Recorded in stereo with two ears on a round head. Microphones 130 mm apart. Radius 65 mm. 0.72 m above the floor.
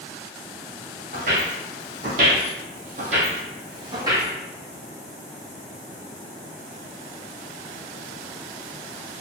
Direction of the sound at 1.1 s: 50° right (ahead or behind).